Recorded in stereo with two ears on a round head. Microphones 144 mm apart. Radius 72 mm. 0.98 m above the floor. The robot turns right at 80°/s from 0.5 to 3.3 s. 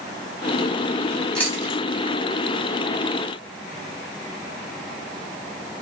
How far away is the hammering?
No hammering in this recording.